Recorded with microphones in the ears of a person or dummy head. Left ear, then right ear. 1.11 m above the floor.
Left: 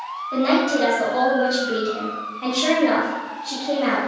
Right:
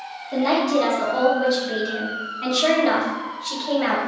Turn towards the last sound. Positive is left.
turn(degrees=-50)  # may be behind; listen again after turning